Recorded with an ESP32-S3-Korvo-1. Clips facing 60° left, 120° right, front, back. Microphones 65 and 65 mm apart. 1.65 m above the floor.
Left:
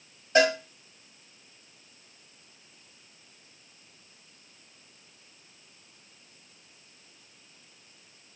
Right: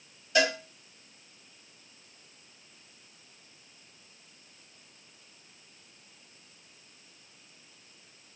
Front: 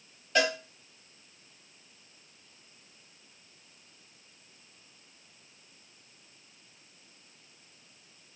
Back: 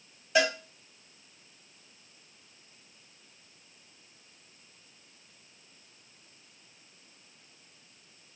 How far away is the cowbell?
About 1.0 m.